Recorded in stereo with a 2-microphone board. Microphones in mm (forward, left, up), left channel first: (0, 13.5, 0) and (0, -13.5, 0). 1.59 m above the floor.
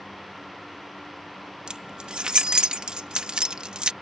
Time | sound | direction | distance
1.7 | keys jangling | 30° right (ahead or behind) | ?